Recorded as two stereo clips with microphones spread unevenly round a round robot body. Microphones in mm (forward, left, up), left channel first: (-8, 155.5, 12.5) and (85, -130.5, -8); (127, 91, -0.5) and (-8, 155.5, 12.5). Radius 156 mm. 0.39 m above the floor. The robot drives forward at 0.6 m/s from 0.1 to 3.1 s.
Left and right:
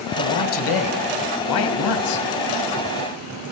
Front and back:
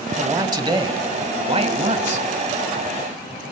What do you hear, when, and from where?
0.2 s a man speaking: 85° left, 2 m; by 2.3 s 120° left, 2.5 m